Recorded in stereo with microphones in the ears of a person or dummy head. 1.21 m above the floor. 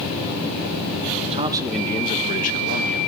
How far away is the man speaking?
About 1.1 m.